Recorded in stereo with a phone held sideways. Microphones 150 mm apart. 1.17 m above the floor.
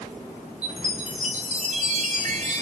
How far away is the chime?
About 2 m.